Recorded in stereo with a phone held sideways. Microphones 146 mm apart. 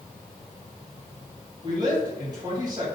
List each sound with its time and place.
1.6 s a woman speaking: 30° right (ahead or behind), 2.5 m